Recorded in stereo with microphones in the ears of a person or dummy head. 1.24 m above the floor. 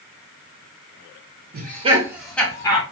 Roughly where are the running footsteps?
I don't hear running footsteps.